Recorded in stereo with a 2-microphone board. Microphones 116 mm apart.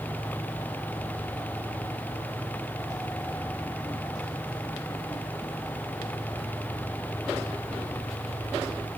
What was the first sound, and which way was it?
Only background noise.